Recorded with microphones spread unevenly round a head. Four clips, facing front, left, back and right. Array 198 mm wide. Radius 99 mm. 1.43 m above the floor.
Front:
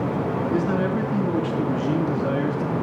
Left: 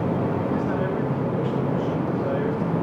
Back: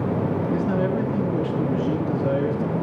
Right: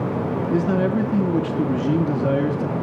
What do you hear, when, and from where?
0.5 s a man speaking: 75° right, 3.5 m